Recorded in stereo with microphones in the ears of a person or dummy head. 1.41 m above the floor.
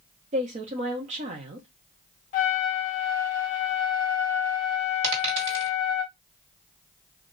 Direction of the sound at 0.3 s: 35° right (ahead or behind).